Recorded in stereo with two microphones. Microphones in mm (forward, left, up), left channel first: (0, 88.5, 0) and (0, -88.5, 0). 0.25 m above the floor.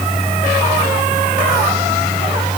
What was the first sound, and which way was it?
Only background noise.